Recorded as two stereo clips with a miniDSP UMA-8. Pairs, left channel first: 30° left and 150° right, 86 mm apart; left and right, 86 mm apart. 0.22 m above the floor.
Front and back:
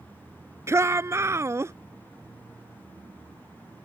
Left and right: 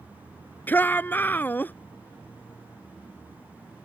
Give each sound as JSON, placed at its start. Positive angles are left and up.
{"t": 0.7, "sound": "a shout", "azimuth_deg": 155}